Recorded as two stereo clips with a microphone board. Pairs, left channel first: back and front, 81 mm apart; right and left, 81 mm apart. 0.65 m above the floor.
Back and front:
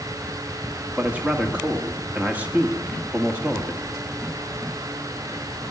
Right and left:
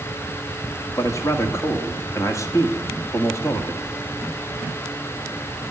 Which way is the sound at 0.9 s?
65° right.